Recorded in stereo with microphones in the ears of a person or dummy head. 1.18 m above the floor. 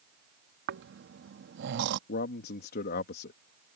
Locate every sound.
0.7 s snoring: 60° right (ahead or behind)
2.1 s a man speaking: 55° left (ahead or behind)